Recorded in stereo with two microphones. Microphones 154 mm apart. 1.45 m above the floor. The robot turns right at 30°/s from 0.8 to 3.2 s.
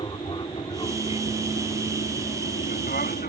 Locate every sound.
0.0 s an aircraft: 30° left (ahead or behind); by 3.3 s 60° left (ahead or behind)